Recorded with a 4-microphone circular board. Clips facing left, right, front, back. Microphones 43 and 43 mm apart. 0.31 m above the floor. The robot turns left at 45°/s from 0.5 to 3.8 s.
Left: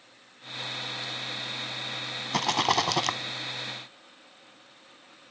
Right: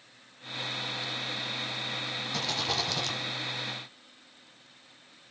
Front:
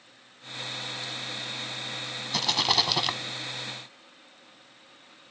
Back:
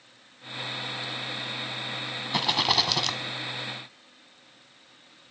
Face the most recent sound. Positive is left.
turn(degrees=45)